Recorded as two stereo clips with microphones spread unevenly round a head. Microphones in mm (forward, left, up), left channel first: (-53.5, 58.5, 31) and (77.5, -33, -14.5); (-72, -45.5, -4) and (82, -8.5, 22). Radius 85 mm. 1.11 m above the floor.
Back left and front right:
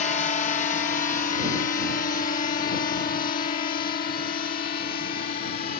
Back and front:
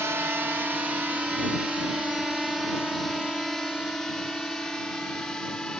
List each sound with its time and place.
0.0 s a drone: 95° left; by 5.8 s 105° left